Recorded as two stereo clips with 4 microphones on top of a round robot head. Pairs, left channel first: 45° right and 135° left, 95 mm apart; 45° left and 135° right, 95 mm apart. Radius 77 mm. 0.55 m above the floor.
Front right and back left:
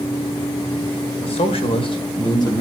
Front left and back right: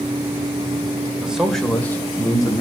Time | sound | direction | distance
1.2 | a man speaking | 55° right | 2 m